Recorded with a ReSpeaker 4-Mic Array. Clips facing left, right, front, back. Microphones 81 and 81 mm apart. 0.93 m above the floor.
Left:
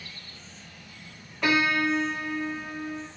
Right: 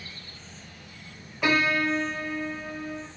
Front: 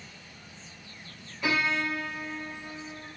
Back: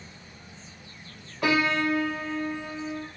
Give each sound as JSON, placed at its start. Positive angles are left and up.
{"t": 1.4, "sound": "a piano", "azimuth_deg": -175, "distance_m": 0.7}